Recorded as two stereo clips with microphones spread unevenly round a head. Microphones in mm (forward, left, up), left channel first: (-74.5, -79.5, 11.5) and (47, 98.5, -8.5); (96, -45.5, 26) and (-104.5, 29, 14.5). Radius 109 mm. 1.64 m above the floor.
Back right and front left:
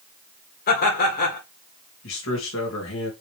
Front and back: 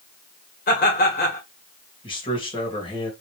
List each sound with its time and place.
0.7 s laughter: 70° right, 2.5 m
2.0 s a man speaking: 90° right, 2.5 m